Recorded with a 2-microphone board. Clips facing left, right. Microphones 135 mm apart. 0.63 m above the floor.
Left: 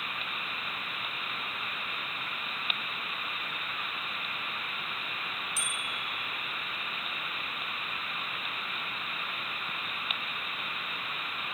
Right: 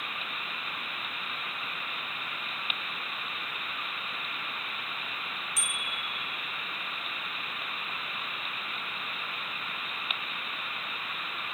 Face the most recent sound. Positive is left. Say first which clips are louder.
# even
turn(degrees=30)  # may be behind; listen again after turning